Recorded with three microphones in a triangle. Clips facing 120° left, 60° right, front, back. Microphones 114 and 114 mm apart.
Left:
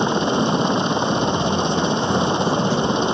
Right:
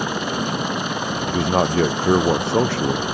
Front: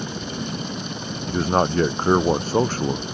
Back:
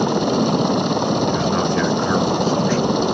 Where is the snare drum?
No snare drum in this recording.